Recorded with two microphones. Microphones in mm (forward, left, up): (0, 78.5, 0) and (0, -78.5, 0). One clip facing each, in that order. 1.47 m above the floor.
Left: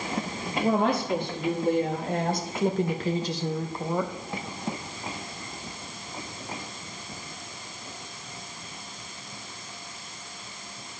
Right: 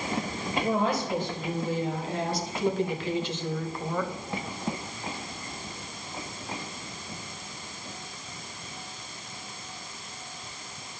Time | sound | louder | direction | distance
0.6 | a woman speaking | left 3 dB | 70° left (ahead or behind) | 3 m